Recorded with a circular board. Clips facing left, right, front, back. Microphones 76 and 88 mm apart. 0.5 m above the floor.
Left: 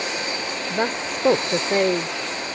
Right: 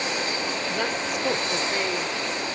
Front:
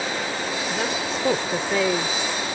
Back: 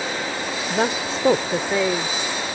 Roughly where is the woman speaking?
Behind left.